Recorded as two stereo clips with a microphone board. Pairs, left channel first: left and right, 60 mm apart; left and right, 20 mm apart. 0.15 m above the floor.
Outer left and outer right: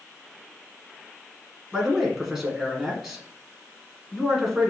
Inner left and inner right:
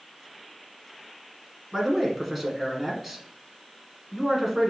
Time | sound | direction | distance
1.7 | a man speaking | 5° right (ahead or behind) | 1.3 m